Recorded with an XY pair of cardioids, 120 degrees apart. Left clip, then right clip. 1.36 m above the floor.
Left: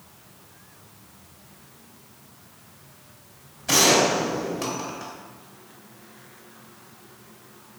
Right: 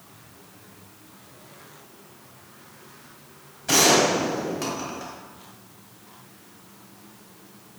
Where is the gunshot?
Straight ahead, 1.6 m.